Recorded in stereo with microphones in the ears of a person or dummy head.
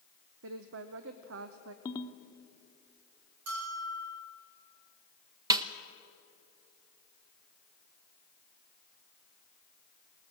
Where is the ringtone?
15° left (ahead or behind), 1.0 m.